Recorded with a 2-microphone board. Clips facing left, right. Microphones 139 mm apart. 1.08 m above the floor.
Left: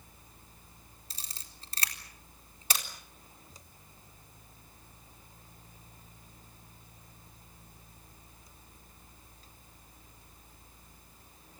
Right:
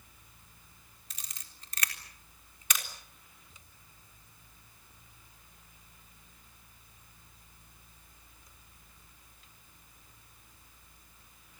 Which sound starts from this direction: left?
A camera shutter, at 1.1 s.